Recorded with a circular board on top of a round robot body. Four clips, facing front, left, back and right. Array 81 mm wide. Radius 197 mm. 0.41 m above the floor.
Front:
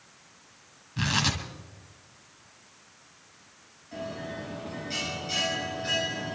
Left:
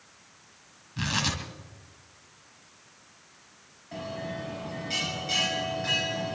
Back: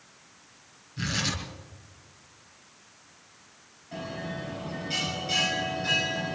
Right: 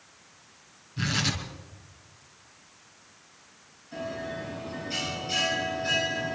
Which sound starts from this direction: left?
A bell, at 3.9 s.